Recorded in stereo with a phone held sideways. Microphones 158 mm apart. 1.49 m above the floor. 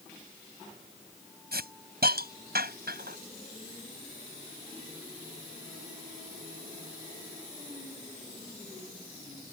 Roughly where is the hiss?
Right.